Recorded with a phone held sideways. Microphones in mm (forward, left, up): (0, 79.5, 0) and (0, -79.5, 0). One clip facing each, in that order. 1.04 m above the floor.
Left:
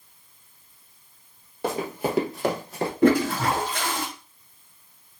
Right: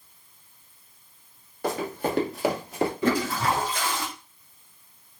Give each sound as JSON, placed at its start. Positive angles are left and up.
{"t": 1.6, "sound": "running footsteps", "side_deg": 20, "distance_m": 1.2}
{"t": 3.0, "sound": "a toilet flushing", "side_deg": 60, "distance_m": 1.0}